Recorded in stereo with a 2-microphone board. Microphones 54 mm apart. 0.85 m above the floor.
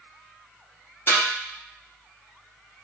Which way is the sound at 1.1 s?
55° left (ahead or behind).